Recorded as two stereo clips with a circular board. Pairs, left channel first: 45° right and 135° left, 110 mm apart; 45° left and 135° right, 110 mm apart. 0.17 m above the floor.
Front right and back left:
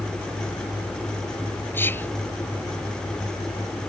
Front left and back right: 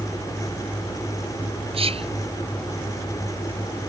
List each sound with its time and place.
1.7 s whispering: 115° right